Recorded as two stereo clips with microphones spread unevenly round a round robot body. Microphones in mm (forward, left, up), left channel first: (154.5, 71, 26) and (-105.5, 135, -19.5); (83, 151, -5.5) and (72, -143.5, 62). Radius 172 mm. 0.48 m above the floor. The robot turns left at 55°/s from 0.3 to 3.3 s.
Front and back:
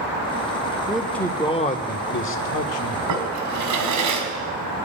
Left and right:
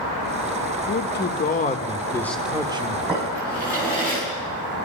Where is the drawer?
Straight behind, 2.5 m; by 4.3 s 170° left, 2.5 m.